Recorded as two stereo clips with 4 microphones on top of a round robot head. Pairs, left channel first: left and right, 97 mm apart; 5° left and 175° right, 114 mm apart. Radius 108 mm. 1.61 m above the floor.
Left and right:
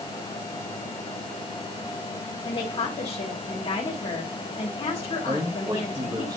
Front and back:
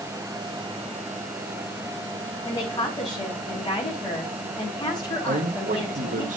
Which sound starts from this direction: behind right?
A man speaking, at 5.3 s.